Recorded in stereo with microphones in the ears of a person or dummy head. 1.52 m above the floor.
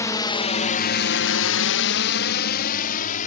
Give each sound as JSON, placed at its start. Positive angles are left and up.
{"t": 0.0, "sound": "a drone", "side_deg": 15}